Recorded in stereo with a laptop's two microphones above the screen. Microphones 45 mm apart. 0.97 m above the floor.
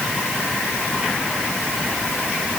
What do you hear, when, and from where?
Only background noise.